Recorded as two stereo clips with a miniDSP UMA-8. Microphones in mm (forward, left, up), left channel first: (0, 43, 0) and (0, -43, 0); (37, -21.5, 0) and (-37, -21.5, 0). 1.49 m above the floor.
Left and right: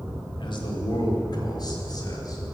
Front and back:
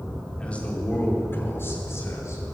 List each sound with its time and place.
0.4 s a man speaking: 75° left, 4.5 m; by 2.4 s 45° left, 6.5 m